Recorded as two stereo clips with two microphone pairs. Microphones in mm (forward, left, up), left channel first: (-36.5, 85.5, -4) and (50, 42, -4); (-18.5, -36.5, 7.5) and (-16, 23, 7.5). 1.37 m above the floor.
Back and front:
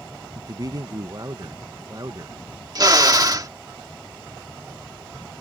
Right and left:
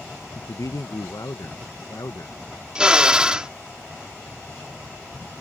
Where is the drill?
15° left.